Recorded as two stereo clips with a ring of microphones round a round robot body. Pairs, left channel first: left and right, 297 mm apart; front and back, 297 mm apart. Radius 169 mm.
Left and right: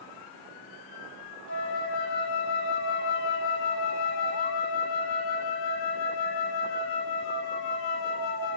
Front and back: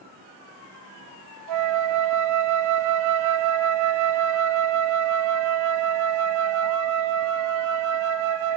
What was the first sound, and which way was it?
A flute, 145° left.